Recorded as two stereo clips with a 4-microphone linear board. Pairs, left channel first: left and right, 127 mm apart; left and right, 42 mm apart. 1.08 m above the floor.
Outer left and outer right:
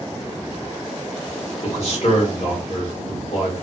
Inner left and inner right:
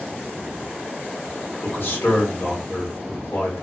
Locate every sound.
1.6 s a man speaking: 55° left (ahead or behind), 1.4 m